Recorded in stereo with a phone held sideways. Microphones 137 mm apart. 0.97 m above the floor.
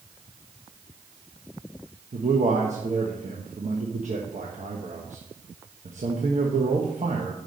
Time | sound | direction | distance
2.1 | a man speaking | 60° right (ahead or behind) | 1.2 m